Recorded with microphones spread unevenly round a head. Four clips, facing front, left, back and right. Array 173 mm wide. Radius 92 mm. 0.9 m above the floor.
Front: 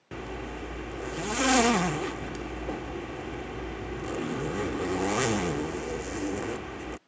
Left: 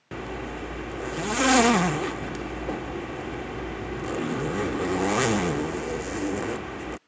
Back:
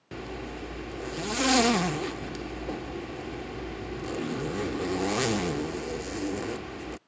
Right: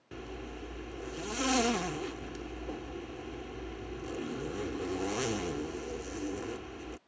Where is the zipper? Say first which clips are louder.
Left 9 dB, even; 95° left.